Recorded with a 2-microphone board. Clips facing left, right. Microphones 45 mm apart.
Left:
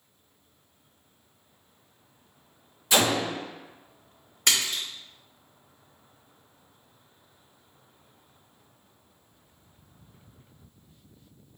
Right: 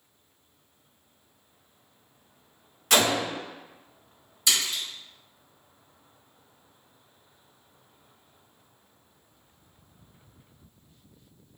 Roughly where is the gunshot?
Right.